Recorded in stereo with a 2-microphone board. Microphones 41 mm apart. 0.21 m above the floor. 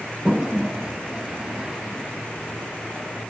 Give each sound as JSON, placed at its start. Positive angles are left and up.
{"t": 0.2, "sound": "a toilet flushing", "side_deg": -15, "distance_m": 0.8}